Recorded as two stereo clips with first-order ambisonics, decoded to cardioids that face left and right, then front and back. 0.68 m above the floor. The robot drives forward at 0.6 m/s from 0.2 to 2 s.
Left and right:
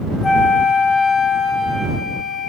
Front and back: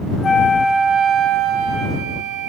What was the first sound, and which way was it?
A flute, 40° left.